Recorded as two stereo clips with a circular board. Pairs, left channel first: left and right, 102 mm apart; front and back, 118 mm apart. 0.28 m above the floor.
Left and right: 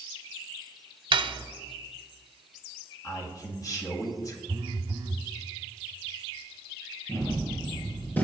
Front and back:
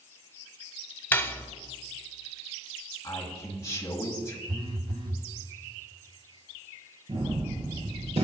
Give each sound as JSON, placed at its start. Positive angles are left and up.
{"t": 1.1, "sound": "cutlery clinking", "azimuth_deg": -70, "distance_m": 0.9}
{"t": 3.0, "sound": "a man speaking", "azimuth_deg": 50, "distance_m": 1.9}
{"t": 4.5, "sound": "a phone buzzing", "azimuth_deg": -140, "distance_m": 1.1}
{"t": 7.1, "sound": "a gunshot", "azimuth_deg": 160, "distance_m": 2.5}